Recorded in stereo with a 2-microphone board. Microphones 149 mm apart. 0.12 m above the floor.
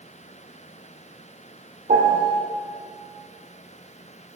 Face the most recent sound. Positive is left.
turn(degrees=-70)  # may be behind; listen again after turning